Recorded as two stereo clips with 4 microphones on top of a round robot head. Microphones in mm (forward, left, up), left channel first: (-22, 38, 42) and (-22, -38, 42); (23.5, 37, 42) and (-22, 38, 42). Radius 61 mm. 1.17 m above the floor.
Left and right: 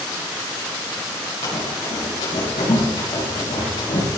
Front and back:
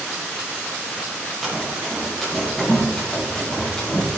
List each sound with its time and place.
1.4 s running footsteps: 90° left, 5.5 m; by 4.2 s 75° left, 7.5 m